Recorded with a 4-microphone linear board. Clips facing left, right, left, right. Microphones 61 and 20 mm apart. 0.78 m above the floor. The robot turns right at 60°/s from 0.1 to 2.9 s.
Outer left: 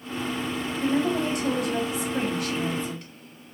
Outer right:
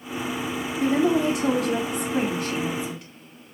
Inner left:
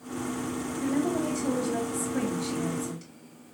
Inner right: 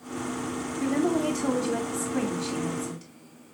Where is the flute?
I don't hear a flute.